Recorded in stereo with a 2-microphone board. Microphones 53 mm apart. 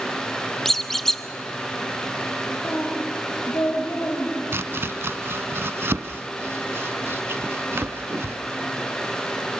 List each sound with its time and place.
0.7 s a squeak: 5° left (ahead or behind), 0.9 m
2.6 s a woman speaking: 55° left (ahead or behind), 4 m
4.5 s chopping: 50° right (ahead or behind), 0.6 m